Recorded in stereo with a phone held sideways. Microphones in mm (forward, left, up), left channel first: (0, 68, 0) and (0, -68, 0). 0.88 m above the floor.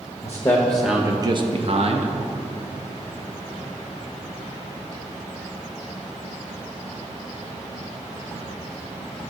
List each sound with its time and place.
0.2 s a man speaking: 25° left (ahead or behind), 1.0 m; by 2.1 s 50° right (ahead or behind), 1.1 m